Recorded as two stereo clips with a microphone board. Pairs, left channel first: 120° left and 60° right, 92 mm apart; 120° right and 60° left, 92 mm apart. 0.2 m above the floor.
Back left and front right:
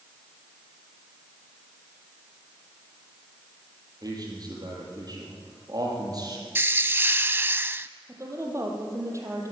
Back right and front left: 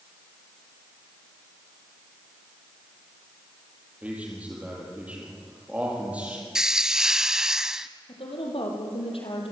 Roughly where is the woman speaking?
Behind right.